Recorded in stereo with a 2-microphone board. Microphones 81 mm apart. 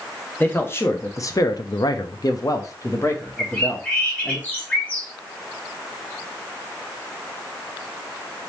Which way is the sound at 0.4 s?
25° left (ahead or behind).